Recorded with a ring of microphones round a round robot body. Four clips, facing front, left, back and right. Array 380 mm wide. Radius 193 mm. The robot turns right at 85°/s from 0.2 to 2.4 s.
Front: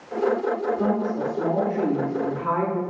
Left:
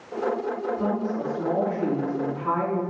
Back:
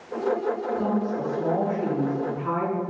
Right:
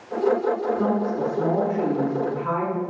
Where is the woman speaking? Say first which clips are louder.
Right 3 dB, front 2 dB; 145° right, 8 m; by 2.8 s 5° right, 8 m.